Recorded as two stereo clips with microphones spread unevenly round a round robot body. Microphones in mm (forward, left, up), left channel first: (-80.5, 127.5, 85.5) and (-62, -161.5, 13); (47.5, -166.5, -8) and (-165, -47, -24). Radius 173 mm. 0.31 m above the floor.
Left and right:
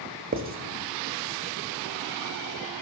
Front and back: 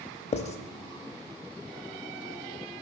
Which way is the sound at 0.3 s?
85° right.